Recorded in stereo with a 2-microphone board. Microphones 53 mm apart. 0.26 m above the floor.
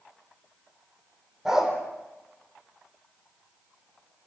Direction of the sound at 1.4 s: 10° right (ahead or behind).